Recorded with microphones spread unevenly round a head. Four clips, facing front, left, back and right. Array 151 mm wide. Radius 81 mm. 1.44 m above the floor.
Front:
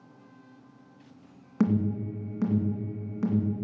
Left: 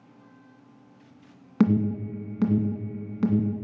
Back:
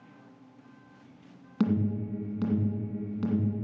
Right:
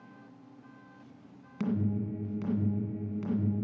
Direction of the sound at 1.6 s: 75° left.